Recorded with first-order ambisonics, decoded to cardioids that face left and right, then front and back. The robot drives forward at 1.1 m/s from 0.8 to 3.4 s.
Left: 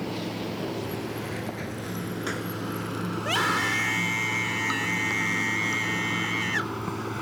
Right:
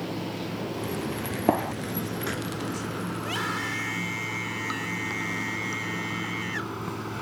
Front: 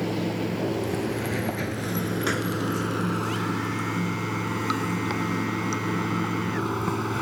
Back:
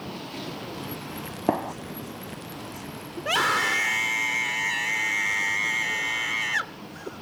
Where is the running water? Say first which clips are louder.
Left 1 dB, front 8 dB; 5° left.